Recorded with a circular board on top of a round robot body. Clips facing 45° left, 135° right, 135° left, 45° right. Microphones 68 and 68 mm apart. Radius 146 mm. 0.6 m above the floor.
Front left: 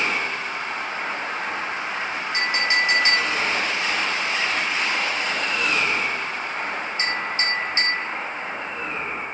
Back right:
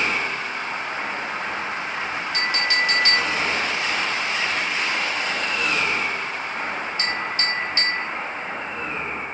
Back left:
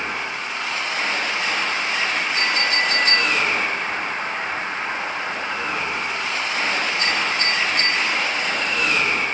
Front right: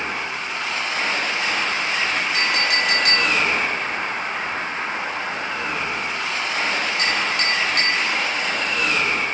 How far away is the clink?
About 3 m.